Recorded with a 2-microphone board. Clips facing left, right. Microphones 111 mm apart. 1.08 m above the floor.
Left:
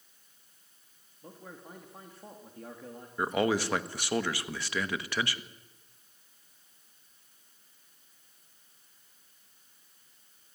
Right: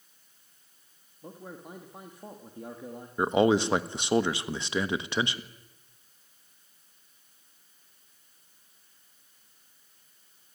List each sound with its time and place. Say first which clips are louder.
1.2 s a man speaking: right 4 dB; 15° right (ahead or behind), 2 m
3.2 s a man speaking: right 5 dB; 25° right (ahead or behind), 1.2 m